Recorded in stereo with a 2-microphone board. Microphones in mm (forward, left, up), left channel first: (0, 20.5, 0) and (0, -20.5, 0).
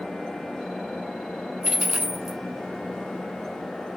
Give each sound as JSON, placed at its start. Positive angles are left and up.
{"t": 1.6, "sound": "a dropped coin", "side_deg": -10, "distance_m": 0.5}